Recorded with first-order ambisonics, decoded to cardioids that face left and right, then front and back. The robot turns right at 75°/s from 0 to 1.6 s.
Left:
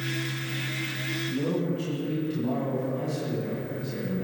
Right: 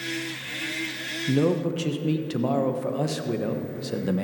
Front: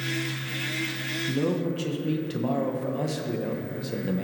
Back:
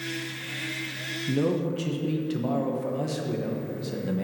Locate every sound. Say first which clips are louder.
1.3 s a man speaking: right 9 dB, back 2 dB; 105° right, 1.0 m; by 4.2 s 80° right, 1.0 m